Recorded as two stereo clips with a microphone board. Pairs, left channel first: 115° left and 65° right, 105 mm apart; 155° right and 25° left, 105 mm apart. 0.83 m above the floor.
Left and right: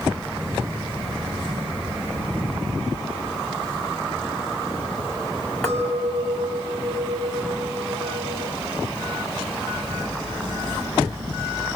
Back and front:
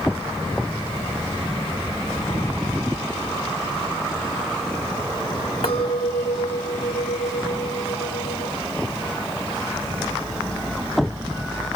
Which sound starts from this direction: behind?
A clink, at 5.6 s.